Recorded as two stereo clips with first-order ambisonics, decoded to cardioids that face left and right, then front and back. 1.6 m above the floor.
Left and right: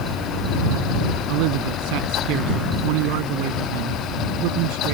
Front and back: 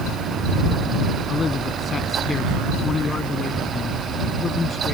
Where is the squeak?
No squeak in this recording.